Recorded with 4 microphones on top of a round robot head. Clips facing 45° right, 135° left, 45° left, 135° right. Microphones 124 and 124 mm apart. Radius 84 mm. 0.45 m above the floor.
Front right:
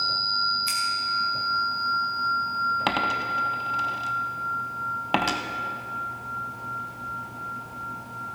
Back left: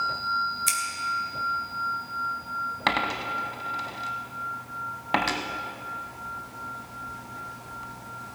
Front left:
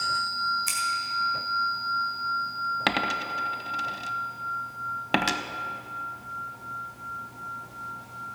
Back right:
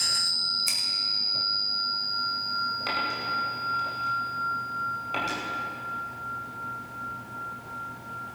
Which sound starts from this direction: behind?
Scissors, at 0.7 s.